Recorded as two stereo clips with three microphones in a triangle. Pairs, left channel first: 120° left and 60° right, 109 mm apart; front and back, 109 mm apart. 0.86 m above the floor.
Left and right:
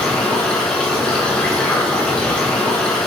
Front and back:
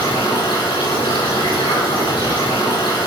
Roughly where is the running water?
Ahead left.